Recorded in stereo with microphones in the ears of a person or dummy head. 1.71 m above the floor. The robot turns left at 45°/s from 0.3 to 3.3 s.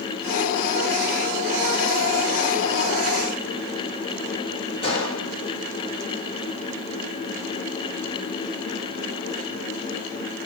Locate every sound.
4.8 s a gunshot: 30° left (ahead or behind), 1.4 m